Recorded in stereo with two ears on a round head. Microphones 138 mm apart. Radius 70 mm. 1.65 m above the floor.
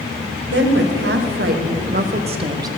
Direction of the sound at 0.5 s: 80° right.